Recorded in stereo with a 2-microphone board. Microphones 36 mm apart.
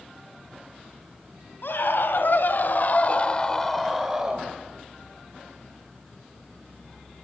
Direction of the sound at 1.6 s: 75° left (ahead or behind).